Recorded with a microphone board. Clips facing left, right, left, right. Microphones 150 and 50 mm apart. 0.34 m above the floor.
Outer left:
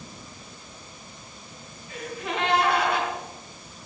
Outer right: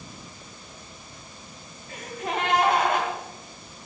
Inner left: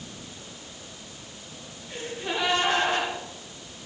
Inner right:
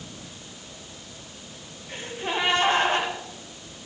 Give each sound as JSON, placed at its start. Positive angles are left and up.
{"t": 1.9, "sound": "a gasp", "side_deg": -45, "distance_m": 3.5}